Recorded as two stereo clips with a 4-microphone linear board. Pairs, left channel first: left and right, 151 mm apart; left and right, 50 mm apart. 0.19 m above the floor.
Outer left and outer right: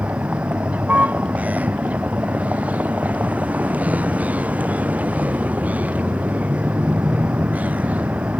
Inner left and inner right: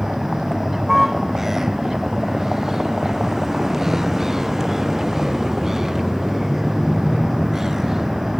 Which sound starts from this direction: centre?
A vehicle, at 0.0 s.